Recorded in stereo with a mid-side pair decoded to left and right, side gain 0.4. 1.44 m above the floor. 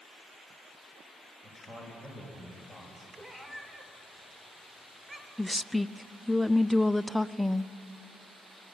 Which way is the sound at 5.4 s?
Straight ahead.